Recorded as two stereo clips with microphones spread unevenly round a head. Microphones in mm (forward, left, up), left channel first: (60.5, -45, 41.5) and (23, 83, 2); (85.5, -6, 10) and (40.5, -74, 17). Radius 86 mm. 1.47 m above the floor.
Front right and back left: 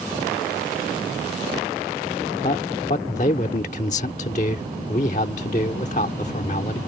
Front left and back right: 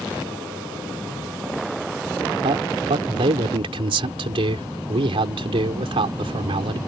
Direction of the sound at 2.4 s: 125° right.